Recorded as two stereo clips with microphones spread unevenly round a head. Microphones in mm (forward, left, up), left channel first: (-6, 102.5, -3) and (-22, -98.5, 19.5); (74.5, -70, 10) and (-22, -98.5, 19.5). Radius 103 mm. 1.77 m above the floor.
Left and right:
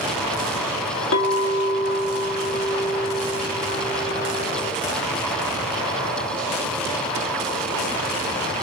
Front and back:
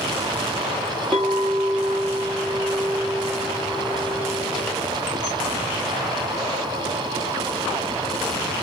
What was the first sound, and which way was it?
A clink, 95° left.